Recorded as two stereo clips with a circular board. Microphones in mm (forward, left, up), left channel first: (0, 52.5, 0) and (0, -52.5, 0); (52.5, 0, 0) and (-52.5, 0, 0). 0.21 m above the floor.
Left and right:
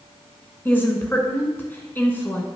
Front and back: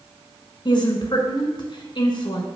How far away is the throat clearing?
I don't hear throat clearing.